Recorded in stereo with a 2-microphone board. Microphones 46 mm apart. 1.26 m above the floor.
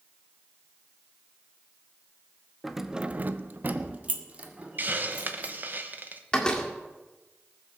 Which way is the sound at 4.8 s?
45° right (ahead or behind).